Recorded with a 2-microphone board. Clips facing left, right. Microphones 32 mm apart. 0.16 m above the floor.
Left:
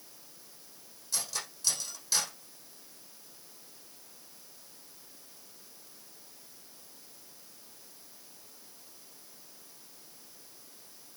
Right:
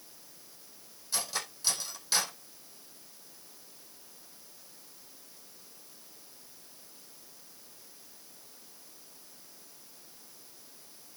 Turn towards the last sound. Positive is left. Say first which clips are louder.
# right 2 dB
turn(degrees=-25)  # may be behind; listen again after turning